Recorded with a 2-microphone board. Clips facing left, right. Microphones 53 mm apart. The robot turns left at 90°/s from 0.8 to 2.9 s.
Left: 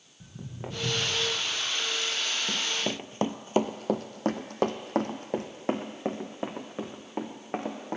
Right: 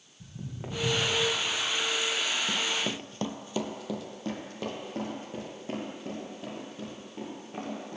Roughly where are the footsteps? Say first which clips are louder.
Even; centre.